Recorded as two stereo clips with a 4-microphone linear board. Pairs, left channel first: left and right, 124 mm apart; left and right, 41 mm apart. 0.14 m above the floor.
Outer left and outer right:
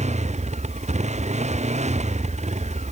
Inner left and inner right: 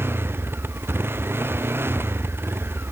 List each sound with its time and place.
0.0 s a motorcycle: 70° right (ahead or behind)